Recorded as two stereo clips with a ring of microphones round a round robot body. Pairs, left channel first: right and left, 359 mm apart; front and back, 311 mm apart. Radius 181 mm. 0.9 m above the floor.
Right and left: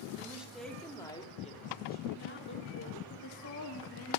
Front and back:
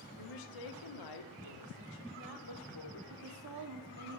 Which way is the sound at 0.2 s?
5° left.